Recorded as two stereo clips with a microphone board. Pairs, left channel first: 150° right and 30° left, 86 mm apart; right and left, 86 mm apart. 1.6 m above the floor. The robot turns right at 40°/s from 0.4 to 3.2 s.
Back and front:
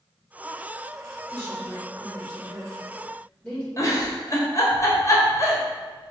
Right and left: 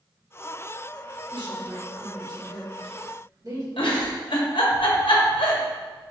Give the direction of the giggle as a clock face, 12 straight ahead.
3 o'clock.